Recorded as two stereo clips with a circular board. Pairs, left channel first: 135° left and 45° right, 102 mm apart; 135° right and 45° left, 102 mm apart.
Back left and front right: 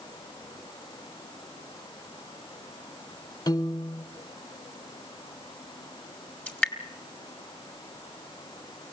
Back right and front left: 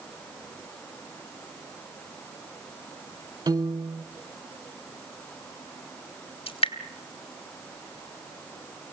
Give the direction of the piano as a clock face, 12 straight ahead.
9 o'clock.